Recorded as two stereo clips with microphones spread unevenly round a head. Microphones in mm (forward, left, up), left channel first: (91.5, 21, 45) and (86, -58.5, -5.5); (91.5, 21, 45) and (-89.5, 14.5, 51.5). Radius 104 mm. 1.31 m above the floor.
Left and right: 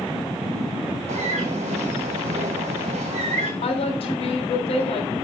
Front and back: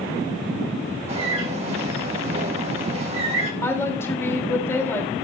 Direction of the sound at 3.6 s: 80° left.